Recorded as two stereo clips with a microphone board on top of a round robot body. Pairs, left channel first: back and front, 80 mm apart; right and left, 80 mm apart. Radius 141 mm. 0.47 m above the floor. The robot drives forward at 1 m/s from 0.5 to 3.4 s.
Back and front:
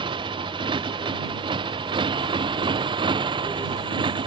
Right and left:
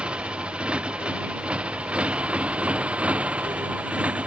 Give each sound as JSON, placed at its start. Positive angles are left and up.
{"t": 0.0, "sound": "a motorcycle", "azimuth_deg": 15}